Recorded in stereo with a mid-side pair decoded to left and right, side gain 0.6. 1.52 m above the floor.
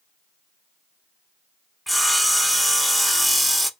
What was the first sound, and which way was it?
Sawing, 5° right.